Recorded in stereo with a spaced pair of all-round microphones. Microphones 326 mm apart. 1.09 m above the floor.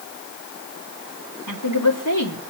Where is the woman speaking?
80° left, 3.5 m.